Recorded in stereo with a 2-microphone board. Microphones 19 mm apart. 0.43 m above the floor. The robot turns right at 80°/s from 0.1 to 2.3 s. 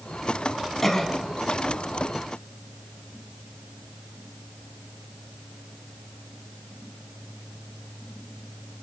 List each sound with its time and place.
0.8 s a cough: 20° left (ahead or behind), 4 m; by 1.1 s 40° left (ahead or behind), 4 m